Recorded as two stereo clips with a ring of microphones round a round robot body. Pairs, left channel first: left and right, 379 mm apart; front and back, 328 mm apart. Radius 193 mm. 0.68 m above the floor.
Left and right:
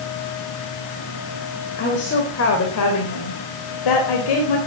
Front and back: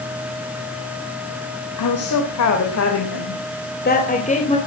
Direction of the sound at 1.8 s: 25° left.